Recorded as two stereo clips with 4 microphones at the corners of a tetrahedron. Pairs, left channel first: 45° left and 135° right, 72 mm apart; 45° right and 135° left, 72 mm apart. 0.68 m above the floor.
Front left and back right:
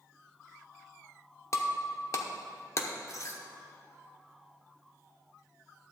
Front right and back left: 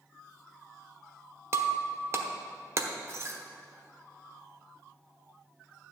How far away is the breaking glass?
About 0.9 m.